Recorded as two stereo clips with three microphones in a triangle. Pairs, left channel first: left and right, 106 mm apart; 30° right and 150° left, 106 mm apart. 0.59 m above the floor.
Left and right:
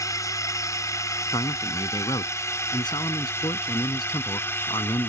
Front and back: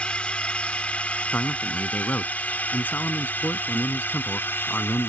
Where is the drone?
45° left; by 5.1 s 30° left.